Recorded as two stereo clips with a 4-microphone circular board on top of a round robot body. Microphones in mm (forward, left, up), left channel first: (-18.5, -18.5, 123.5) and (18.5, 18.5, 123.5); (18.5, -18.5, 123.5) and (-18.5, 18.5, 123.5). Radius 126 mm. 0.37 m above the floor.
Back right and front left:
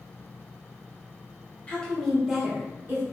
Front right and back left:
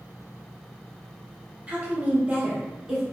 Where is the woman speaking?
175° left, 1.5 m; by 3.0 s 70° left, 1.6 m.